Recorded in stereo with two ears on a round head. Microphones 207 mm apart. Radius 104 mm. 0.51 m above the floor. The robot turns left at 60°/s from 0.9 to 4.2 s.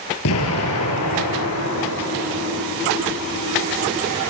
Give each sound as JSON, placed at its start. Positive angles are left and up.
{"t": 0.2, "sound": "an explosion", "azimuth_deg": 110, "distance_m": 4.0}